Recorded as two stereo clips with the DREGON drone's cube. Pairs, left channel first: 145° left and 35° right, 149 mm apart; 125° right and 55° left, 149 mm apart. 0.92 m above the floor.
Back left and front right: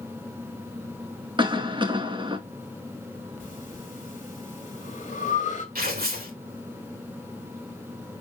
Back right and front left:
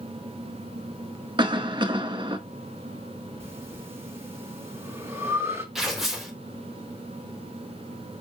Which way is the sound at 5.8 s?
30° right.